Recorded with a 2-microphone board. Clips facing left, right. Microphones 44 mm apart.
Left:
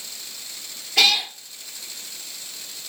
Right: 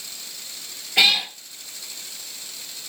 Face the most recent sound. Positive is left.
turn(degrees=-15)  # may be behind; listen again after turning